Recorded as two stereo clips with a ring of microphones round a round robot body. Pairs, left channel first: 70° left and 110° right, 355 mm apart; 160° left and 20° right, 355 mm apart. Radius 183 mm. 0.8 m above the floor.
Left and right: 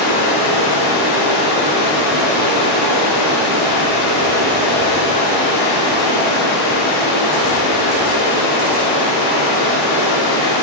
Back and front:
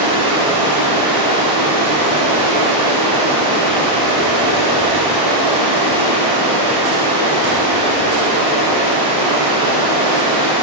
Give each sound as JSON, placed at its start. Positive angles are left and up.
{"t": 0.0, "sound": "running water", "azimuth_deg": 55, "distance_m": 3.5}